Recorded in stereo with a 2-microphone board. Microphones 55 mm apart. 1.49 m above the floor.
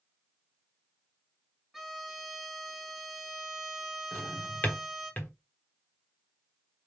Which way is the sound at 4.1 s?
35° left (ahead or behind).